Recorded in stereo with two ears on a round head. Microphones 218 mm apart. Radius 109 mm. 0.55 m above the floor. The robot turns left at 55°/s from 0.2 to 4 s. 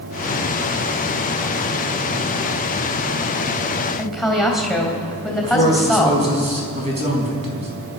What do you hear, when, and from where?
4.0 s a woman speaking: centre (ahead or behind), 3.5 m
5.4 s a man speaking: 25° right (ahead or behind), 4 m